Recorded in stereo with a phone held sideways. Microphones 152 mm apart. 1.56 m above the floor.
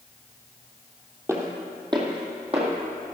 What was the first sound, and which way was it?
Footsteps, 15° right (ahead or behind).